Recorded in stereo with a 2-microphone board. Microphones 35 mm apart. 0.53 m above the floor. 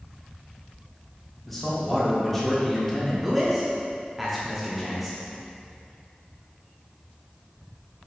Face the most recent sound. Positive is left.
turn(degrees=-5)  # may be behind; listen again after turning